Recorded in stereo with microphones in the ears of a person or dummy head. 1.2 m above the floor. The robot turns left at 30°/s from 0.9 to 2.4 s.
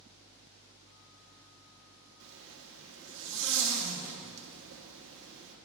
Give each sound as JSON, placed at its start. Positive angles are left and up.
{"t": 2.2, "sound": "a zipper", "side_deg": -60, "distance_m": 1.0}